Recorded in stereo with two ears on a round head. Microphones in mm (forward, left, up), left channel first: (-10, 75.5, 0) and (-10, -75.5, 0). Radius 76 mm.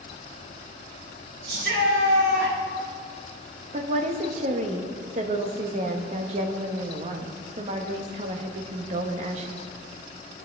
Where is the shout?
65° right (ahead or behind), 2.5 m.